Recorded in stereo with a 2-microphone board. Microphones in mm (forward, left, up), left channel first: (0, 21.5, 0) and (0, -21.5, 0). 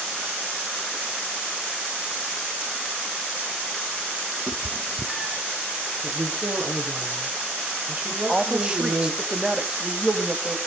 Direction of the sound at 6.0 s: 35° right (ahead or behind).